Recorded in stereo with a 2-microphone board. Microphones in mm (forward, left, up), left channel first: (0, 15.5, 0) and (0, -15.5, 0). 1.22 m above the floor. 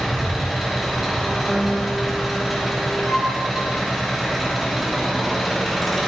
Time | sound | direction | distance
0.0 | an engine running | centre (ahead or behind) | 3 m
1.5 | a guitar | centre (ahead or behind) | 1.1 m
3.0 | a flute | 15° right (ahead or behind) | 2.5 m